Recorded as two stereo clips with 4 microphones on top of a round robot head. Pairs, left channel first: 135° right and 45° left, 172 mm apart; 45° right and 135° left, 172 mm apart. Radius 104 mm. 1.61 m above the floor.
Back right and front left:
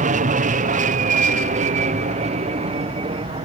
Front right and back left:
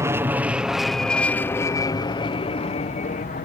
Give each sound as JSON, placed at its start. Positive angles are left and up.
{"t": 0.0, "sound": "an aircraft", "azimuth_deg": 65}